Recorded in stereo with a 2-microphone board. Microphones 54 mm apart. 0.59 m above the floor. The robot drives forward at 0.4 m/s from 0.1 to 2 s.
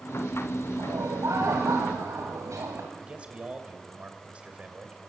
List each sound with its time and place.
0.8 s laughter: 75° right (ahead or behind), 2.5 m; by 2.9 s 70° right (ahead or behind), 3 m
3.0 s a man speaking: 20° right (ahead or behind), 3 m